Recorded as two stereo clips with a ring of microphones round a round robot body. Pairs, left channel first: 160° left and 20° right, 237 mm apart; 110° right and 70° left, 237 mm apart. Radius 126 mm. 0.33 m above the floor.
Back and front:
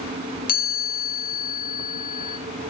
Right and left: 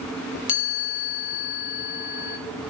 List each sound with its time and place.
0.5 s a chime: 150° right, 3 m